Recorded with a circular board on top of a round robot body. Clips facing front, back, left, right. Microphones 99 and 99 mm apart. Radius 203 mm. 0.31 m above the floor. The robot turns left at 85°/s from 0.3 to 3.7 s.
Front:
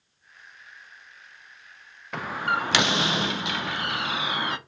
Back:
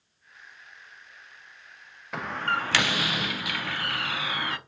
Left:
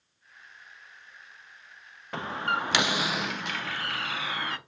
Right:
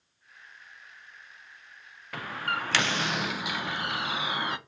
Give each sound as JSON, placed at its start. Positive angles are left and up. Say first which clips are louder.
{"t": 2.1, "sound": "a door slam", "louder": "front 2 dB, left 3 dB", "azimuth_deg": 95, "distance_m": 0.5}